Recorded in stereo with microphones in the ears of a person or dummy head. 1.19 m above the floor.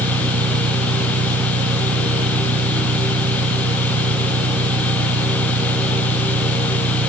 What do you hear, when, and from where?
0.0 s an engine running: 55° right (ahead or behind)